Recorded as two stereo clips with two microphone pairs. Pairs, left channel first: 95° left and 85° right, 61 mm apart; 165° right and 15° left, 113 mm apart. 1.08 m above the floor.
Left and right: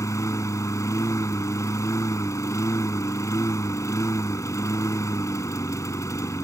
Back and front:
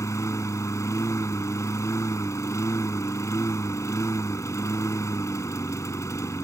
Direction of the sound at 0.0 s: 130° left.